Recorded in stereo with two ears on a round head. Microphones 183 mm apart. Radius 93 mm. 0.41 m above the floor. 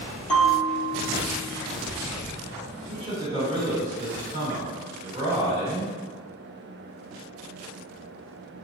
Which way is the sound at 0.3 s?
5° left (ahead or behind).